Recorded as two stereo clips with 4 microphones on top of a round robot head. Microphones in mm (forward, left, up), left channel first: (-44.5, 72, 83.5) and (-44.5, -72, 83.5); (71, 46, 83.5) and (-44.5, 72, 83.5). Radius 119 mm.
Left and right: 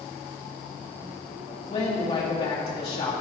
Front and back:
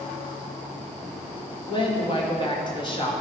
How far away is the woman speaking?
About 2 m.